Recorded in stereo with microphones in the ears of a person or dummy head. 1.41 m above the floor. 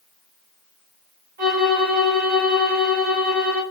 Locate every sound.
1.4 s a violin: 55° right (ahead or behind), 2.5 m